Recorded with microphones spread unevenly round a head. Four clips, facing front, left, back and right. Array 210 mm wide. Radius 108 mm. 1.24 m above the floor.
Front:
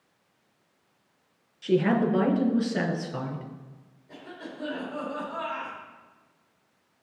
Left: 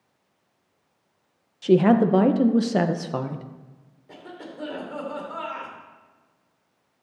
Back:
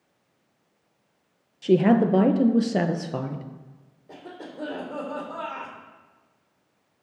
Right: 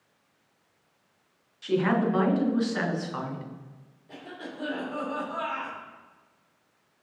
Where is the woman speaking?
130° left, 1.0 m.